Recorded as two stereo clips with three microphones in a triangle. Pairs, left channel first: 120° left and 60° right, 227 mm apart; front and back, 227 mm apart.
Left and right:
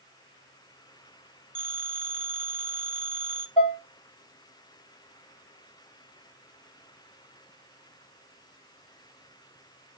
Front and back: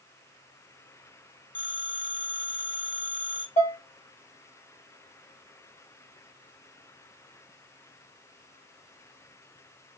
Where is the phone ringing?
30° right, 1.2 m.